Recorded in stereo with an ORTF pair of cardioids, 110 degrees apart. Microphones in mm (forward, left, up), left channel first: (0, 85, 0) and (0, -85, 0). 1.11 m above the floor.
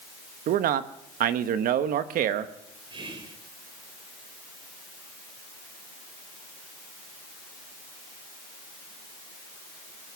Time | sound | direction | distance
0.5 | a man speaking | 65° right | 1.0 m
2.9 | whispering | 30° right | 4 m